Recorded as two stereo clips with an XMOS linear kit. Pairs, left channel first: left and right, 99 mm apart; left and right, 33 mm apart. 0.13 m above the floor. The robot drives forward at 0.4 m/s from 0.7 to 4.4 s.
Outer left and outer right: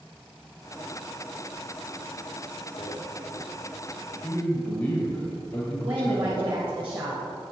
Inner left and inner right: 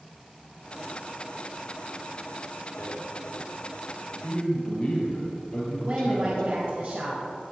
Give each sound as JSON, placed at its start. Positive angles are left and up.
{"t": 2.8, "sound": "a rattle", "side_deg": 40, "distance_m": 2.0}
{"t": 4.2, "sound": "a man speaking", "side_deg": 25, "distance_m": 3.5}
{"t": 5.8, "sound": "a woman speaking", "side_deg": -65, "distance_m": 3.5}